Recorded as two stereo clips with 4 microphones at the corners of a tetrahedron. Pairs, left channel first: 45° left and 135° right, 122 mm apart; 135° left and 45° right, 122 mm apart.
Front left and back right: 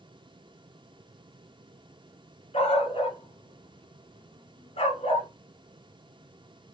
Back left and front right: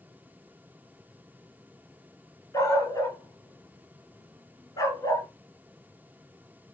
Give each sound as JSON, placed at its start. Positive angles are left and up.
{"t": 2.5, "sound": "a dog barking", "azimuth_deg": 75, "distance_m": 1.9}